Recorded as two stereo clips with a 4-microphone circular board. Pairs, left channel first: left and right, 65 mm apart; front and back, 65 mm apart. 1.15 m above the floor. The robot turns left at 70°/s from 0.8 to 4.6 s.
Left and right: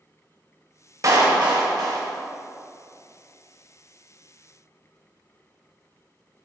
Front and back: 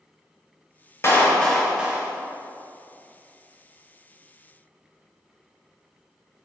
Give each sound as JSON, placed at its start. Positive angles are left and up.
{"t": 1.0, "sound": "a clap", "azimuth_deg": -50, "distance_m": 1.4}